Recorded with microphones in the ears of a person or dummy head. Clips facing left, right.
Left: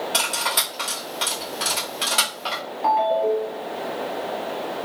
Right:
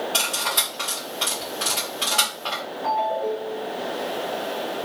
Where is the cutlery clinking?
15° left (ahead or behind), 1.5 m.